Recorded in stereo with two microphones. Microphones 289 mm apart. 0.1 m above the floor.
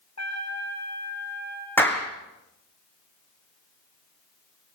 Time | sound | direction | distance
0.2 | a trumpet | 70° left (ahead or behind) | 5.5 m
1.8 | a clap | 5° left (ahead or behind) | 4.5 m